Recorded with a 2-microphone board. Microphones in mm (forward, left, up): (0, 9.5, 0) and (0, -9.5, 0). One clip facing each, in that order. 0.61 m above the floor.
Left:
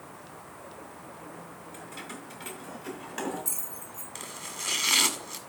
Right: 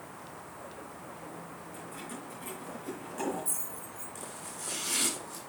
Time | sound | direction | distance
1.7 | keys jangling | 45° left (ahead or behind) | 5 m
4.2 | chopping | 60° left (ahead or behind) | 1.7 m